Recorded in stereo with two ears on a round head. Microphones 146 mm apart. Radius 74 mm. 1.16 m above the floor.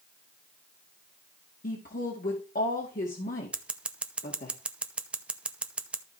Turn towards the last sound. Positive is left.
turn(degrees=-5)  # may be behind; listen again after turning